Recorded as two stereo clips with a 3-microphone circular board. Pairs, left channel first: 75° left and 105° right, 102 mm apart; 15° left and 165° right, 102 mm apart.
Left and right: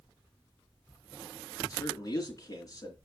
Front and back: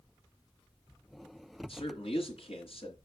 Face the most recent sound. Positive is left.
turn(degrees=20)